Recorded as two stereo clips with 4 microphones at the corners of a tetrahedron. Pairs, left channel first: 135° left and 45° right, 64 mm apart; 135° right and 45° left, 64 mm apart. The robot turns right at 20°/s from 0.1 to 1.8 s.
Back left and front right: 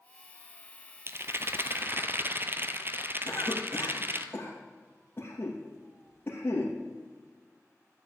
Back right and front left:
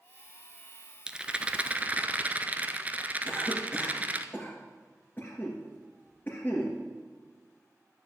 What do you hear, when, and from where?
1.1 s a rattle: 25° right, 0.8 m; by 4.2 s 10° right, 0.8 m
3.2 s a cough: 175° left, 2.5 m